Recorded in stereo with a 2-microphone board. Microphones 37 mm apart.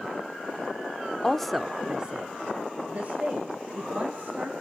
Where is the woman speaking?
15° left (ahead or behind), 0.8 m; by 4.5 s 40° right (ahead or behind), 3.5 m.